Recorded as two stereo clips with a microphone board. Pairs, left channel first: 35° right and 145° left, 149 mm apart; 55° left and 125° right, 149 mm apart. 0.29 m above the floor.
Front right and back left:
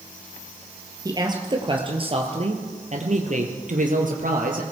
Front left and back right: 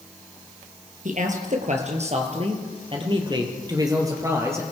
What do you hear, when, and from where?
1.1 s a man speaking: 150° right, 4.5 m; by 4.6 s 165° left, 5 m